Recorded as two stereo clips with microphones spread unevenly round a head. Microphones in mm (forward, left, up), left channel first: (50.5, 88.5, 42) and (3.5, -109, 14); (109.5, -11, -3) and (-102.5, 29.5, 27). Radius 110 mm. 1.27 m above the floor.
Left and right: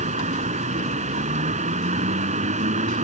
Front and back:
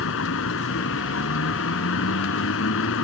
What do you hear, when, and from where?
0.0 s a vehicle: 45° right